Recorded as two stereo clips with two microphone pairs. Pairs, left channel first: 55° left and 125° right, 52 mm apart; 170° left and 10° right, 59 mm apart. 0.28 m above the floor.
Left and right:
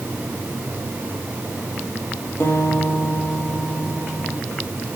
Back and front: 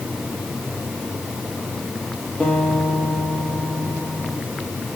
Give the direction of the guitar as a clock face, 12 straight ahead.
9 o'clock.